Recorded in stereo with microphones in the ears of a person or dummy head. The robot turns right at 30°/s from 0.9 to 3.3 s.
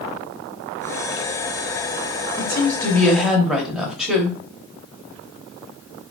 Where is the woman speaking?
25° left (ahead or behind), 1.0 m; by 4.4 s centre (ahead or behind), 1.0 m.